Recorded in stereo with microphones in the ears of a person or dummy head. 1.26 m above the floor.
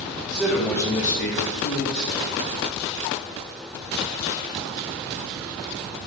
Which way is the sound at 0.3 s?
10° right (ahead or behind).